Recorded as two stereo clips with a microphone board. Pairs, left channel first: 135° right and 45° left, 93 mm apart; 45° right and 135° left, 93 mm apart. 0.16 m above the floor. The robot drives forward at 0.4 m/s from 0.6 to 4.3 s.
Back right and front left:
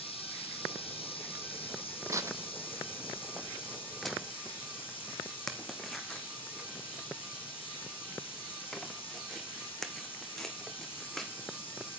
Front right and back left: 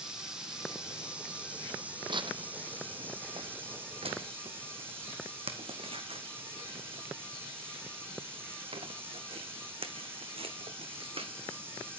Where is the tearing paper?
100° left, 1.0 m; by 11.9 s 140° left, 1.4 m.